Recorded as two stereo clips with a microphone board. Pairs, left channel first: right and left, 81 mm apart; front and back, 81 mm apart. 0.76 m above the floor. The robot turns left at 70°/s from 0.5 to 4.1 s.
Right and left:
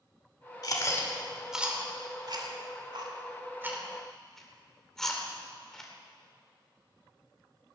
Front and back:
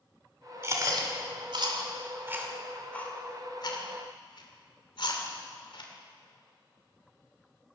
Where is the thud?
I don't hear a thud.